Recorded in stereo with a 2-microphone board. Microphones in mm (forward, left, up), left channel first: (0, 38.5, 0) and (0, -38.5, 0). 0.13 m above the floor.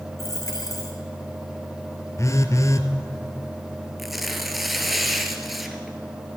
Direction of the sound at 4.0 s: Centre (ahead or behind).